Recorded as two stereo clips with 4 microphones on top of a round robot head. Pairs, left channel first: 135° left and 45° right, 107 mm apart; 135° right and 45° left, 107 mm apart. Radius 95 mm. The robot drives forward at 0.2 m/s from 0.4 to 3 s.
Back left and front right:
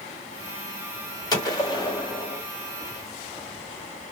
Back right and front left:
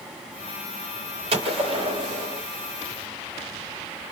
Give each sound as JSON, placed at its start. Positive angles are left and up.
{"t": 1.3, "sound": "a gunshot", "azimuth_deg": 80, "distance_m": 1.3}